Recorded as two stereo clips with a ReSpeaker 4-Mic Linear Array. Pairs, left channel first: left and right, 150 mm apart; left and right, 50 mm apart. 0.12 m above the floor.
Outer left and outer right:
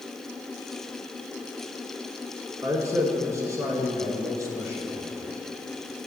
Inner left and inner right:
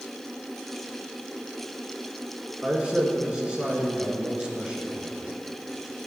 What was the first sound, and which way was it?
A man speaking, 20° right (ahead or behind).